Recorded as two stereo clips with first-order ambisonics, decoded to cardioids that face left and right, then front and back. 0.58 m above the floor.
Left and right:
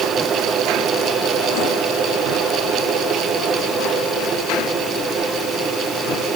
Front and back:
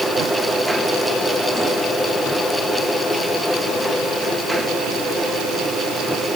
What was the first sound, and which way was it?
Only background noise.